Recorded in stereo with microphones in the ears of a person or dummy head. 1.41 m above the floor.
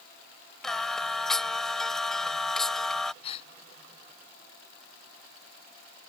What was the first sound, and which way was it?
Singing, 5° left (ahead or behind).